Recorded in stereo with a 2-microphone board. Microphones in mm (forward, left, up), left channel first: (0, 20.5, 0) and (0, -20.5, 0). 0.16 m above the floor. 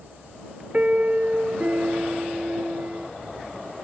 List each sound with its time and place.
0.7 s a piano: 40° right (ahead or behind)